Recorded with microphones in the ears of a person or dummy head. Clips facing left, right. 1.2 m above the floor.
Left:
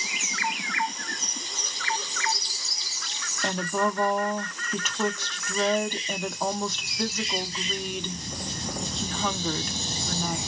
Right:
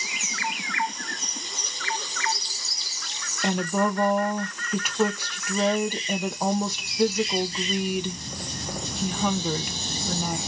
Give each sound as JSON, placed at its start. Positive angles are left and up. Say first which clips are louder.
{"t": 3.4, "sound": "a woman speaking", "louder": "right 3 dB", "side_deg": -10, "distance_m": 0.7}